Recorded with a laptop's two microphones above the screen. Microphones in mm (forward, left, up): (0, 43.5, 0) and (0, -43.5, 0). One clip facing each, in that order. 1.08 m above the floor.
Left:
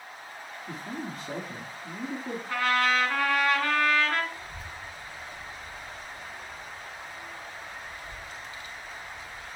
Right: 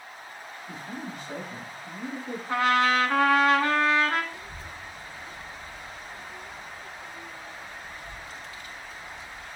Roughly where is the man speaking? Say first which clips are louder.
Left 1 dB; left.